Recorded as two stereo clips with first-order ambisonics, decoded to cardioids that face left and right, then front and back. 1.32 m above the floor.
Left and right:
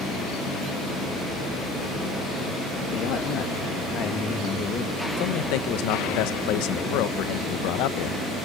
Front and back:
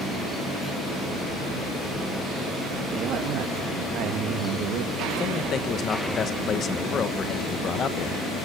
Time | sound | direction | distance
2.9 | a man speaking | 130° left | 2.5 m
5.2 | a man speaking | 65° left | 1.1 m